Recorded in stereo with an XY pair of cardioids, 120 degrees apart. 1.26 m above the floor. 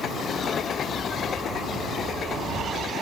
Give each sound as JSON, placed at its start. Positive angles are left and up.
{"t": 0.3, "sound": "a dog barking", "azimuth_deg": 25}